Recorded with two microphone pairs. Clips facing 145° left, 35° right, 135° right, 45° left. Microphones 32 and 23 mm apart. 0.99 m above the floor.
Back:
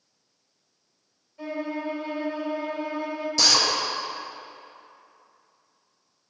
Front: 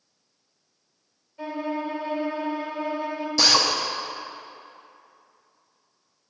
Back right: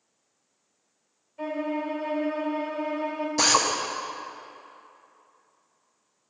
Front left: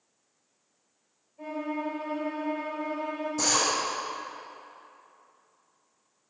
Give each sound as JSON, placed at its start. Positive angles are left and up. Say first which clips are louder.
{"t": 1.4, "sound": "a violin", "louder": "front 2 dB, back right 3 dB", "azimuth_deg": -115, "distance_m": 1.5}
{"t": 3.4, "sound": "a drill", "louder": "front 2 dB, back right 5 dB", "azimuth_deg": -115, "distance_m": 1.0}